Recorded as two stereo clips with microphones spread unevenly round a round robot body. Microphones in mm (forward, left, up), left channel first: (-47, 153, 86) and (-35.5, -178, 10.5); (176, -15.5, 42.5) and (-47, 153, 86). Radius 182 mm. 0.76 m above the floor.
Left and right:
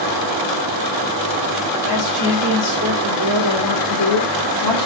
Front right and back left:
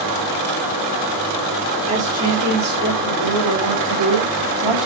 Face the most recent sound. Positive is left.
turn(degrees=125)